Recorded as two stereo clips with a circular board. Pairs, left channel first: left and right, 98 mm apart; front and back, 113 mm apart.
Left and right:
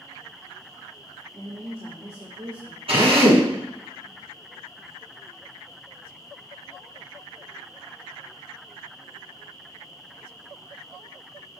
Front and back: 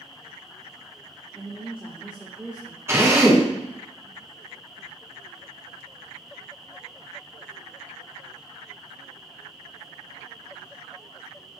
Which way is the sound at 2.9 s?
110° right.